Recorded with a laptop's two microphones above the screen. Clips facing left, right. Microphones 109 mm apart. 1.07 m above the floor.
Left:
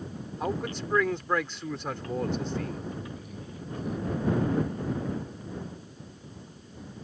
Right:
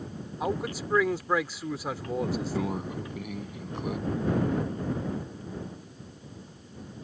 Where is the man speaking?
5° right (ahead or behind).